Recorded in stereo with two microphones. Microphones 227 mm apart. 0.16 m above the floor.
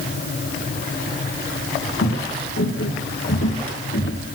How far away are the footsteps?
About 2 m.